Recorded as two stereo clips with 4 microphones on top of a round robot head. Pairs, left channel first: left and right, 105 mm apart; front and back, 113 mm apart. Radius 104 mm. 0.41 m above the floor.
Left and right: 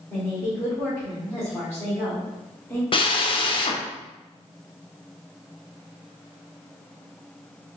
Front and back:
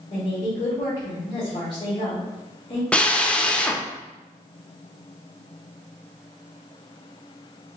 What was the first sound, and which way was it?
A woman speaking, 25° left.